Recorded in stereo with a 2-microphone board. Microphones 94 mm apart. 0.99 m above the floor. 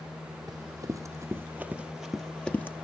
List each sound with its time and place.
0.5 s running footsteps: 40° right (ahead or behind), 1.8 m; by 2.7 s 20° left (ahead or behind), 1.3 m